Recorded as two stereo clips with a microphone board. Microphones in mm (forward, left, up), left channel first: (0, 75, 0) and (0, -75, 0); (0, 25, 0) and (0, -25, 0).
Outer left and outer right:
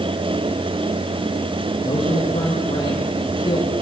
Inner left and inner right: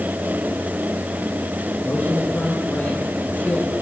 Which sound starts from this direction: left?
A man speaking, at 1.8 s.